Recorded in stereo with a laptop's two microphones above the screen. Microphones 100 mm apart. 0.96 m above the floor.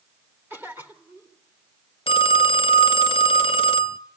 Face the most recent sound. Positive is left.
turn(degrees=65)  # may be behind; listen again after turning